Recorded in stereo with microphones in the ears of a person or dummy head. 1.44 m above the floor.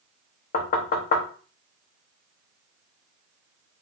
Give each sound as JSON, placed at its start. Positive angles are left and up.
{"t": 0.5, "sound": "knocking", "side_deg": 45, "distance_m": 0.7}